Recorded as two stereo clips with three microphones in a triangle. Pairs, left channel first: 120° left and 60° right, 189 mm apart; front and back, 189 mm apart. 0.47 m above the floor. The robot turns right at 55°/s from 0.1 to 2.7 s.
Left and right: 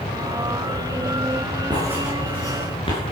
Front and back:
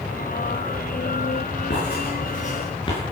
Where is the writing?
5° left, 7 m; by 3.0 s 60° left, 7 m.